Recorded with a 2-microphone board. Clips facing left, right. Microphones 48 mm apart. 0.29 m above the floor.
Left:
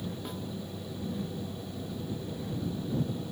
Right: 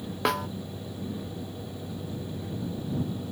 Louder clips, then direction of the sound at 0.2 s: Right 12 dB; 75° right (ahead or behind).